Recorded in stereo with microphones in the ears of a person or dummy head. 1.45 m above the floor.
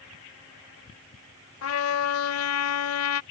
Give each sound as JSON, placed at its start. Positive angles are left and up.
{"t": 1.6, "sound": "a trumpet", "side_deg": 75}